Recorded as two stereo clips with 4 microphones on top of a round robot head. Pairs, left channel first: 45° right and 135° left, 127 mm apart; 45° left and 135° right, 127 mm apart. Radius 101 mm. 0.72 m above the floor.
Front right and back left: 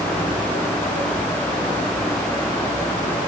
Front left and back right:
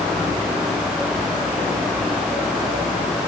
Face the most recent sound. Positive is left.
No sound to turn to.